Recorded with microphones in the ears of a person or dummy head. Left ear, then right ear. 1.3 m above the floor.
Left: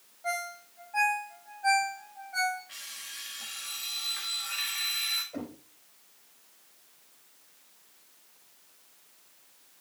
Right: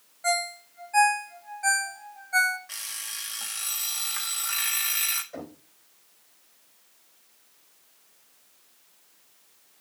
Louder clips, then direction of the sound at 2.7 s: Right 5 dB; 45° right (ahead or behind).